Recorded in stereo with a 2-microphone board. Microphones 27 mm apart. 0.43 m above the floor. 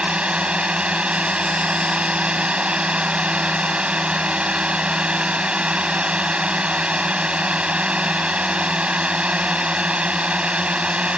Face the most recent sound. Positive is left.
turn(degrees=-50)  # may be behind; listen again after turning